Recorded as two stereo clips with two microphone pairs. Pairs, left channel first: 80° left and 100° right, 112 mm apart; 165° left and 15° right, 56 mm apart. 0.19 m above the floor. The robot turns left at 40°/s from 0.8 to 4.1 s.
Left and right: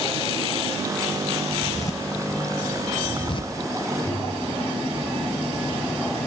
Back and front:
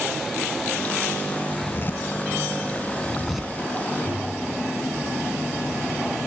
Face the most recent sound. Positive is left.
turn(degrees=155)